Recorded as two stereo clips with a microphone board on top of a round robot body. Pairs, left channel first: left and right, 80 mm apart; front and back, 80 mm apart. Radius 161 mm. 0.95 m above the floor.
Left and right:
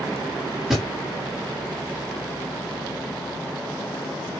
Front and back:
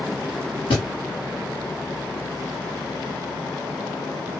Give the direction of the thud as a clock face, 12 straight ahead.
12 o'clock.